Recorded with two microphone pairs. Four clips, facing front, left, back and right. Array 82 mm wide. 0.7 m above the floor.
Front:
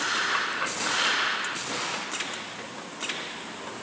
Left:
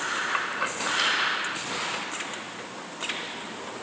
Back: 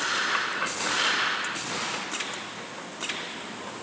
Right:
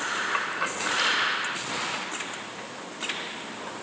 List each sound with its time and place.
Only background noise.